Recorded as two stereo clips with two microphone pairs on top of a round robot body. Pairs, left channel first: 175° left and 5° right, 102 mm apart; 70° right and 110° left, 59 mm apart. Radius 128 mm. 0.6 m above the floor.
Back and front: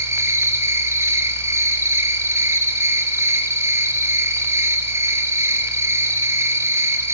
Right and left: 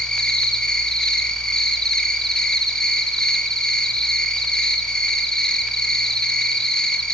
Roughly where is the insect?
Ahead left.